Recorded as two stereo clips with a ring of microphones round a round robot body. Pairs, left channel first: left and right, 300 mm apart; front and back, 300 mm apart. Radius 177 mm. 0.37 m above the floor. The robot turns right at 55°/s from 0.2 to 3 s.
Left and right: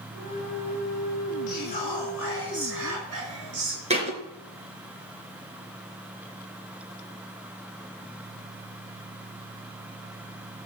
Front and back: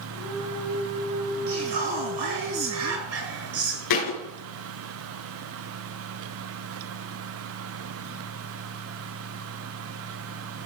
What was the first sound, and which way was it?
Whispering, 140° left.